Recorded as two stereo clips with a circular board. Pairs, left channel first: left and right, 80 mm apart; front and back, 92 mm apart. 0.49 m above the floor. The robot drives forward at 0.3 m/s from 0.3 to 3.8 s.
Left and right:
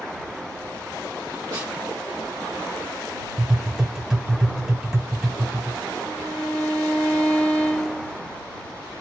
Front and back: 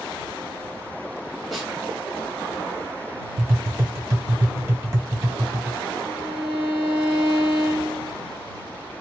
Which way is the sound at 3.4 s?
160° right.